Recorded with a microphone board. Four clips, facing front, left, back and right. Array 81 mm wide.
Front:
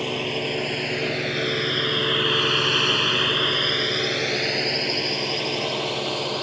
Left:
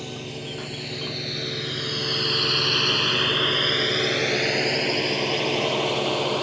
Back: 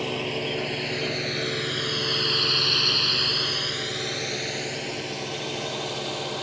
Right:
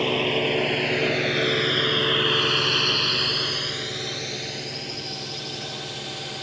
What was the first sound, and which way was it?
A drone, 85° right.